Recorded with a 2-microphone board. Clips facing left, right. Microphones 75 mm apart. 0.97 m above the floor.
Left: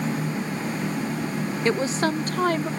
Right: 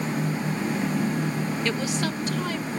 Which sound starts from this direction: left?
A woman speaking, at 1.6 s.